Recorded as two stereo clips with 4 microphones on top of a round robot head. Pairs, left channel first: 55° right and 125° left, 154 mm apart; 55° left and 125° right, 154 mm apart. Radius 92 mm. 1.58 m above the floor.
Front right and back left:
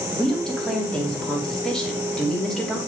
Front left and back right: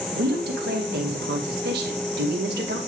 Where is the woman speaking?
140° right, 2.5 m.